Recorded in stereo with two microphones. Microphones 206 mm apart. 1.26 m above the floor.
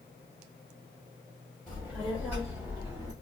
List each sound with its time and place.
1.7 s a child speaking: 5° left (ahead or behind), 2.5 m; by 3.1 s 10° right (ahead or behind), 2 m